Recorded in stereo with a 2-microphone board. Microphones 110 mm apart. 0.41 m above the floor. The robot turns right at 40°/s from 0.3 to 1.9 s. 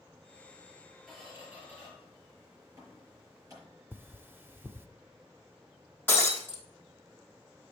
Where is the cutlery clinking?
20° right (ahead or behind), 0.5 m.